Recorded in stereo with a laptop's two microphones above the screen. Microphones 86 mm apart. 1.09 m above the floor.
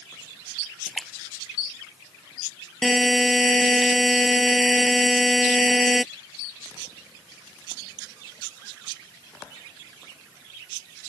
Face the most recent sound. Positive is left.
turn(degrees=0)  # may be behind; listen again after turning